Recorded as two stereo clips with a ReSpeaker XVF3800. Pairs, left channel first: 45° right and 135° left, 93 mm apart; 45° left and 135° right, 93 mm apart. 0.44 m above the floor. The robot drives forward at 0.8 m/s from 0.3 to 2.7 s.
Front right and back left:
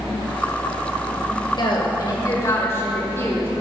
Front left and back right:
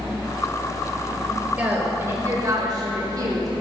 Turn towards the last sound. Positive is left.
turn(degrees=-105)